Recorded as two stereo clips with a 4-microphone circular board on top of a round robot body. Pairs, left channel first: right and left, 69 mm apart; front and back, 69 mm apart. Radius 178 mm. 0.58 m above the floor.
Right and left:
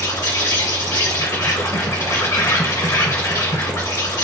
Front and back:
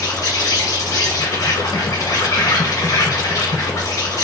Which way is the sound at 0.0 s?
45° right.